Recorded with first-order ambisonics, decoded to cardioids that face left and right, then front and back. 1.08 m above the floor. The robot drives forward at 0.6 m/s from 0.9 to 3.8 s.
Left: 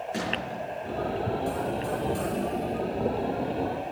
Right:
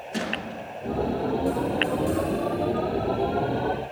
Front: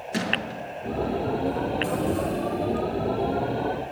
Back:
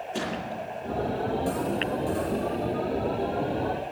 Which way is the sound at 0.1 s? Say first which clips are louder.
Right 3 dB, front 6 dB; 5° right.